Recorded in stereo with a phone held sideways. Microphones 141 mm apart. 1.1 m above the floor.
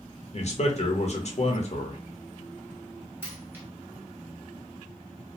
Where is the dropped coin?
15° right (ahead or behind), 1.1 m.